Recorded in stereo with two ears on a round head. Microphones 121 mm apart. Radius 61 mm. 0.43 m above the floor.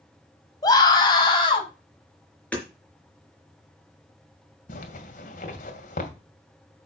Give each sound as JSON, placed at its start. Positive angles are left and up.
{"t": 0.6, "sound": "a scream", "side_deg": 30, "distance_m": 3.0}
{"t": 2.5, "sound": "hammering", "side_deg": 10, "distance_m": 4.0}
{"t": 4.7, "sound": "a zipper", "side_deg": 65, "distance_m": 2.0}